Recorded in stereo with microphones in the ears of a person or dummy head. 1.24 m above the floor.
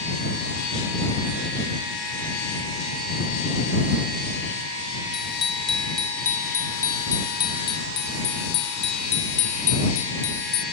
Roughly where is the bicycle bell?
Centre.